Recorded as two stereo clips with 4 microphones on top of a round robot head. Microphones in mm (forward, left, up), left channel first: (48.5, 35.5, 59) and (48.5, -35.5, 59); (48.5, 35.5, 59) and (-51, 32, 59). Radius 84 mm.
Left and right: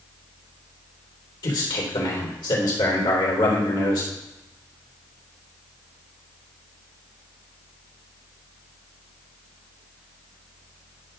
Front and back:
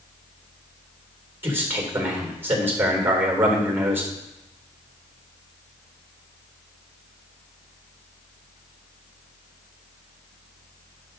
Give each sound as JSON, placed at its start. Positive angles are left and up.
{"t": 1.4, "sound": "a man speaking", "azimuth_deg": 115, "distance_m": 3.0}